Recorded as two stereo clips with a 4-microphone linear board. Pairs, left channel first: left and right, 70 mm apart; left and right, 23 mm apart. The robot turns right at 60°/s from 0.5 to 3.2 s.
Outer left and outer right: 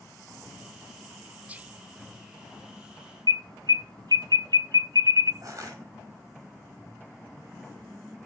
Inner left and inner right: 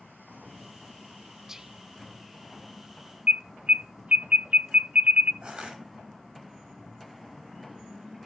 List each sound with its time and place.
1.5 s whispering: 20° right (ahead or behind), 0.8 m
3.3 s an alarm: 75° right (ahead or behind), 1.2 m
5.4 s crushing: 50° right (ahead or behind), 6 m